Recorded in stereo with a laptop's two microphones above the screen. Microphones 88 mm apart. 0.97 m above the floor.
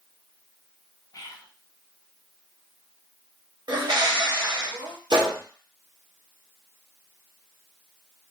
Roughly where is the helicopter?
No helicopter in this recording.